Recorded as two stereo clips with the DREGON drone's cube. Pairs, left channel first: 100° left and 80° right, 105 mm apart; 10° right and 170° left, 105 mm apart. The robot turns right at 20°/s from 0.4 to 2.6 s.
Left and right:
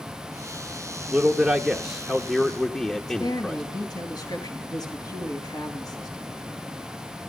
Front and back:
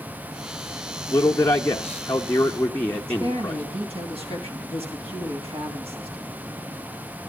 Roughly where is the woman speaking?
Behind left.